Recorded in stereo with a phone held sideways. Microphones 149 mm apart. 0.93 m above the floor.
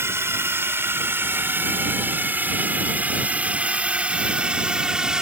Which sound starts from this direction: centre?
A drone, at 0.0 s.